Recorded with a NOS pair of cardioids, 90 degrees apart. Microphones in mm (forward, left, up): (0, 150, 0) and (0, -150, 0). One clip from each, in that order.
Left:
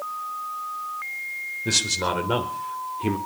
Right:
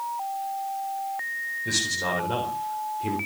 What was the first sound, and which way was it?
A man speaking, 50° left.